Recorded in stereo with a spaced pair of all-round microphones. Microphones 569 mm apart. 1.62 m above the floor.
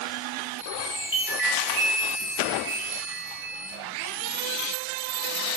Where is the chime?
70° right (ahead or behind), 4 m.